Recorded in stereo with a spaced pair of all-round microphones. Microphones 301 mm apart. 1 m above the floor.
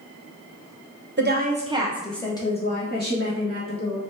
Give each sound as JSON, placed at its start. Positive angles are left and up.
{"t": 1.2, "sound": "a woman speaking", "side_deg": -35, "distance_m": 0.8}